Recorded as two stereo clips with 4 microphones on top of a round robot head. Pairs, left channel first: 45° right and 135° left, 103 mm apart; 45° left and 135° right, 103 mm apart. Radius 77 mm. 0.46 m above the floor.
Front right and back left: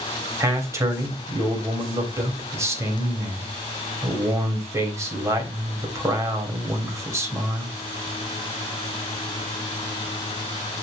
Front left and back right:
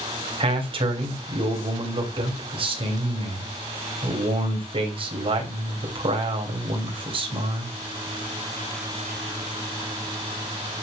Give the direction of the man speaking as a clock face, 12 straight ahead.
5 o'clock.